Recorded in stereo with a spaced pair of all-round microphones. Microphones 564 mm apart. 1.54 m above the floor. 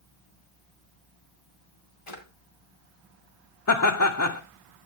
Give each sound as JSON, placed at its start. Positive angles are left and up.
{"t": 2.1, "sound": "a drawer", "side_deg": 70, "distance_m": 2.5}
{"t": 3.7, "sound": "laughter", "side_deg": 35, "distance_m": 0.7}